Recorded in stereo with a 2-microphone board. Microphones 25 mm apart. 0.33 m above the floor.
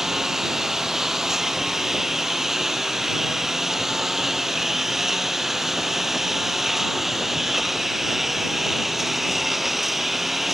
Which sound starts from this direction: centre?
A lawn mower, at 0.0 s.